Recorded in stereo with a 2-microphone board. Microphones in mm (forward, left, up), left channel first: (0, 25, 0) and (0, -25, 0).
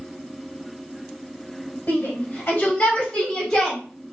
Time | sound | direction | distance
1.9 | a shout | 40° left (ahead or behind) | 1.8 m